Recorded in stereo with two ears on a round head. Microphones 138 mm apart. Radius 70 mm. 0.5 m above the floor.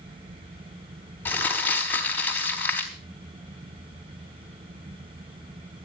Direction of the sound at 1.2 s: 15° left (ahead or behind).